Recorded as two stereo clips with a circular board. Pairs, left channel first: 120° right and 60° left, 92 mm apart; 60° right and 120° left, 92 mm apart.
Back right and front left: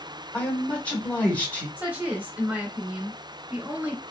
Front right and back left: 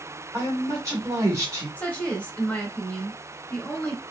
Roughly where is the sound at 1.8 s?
Ahead.